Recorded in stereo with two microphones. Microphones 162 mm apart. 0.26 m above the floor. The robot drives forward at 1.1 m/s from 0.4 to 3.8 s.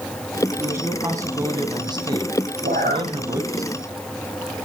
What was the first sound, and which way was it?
A man speaking, 15° right (ahead or behind).